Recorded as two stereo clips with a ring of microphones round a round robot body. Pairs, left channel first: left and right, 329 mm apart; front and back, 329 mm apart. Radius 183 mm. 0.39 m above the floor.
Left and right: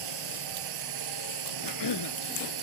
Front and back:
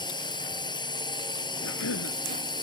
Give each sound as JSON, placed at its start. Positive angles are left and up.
{"t": 0.0, "sound": "a drone", "azimuth_deg": -75}
{"t": 1.6, "sound": "a cough", "azimuth_deg": 55}